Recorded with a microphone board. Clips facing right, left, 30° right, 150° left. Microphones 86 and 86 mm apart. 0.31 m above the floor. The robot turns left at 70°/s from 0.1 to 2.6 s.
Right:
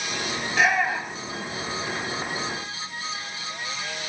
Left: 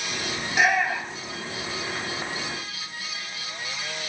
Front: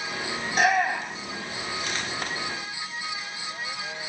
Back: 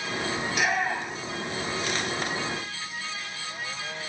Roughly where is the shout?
Ahead left.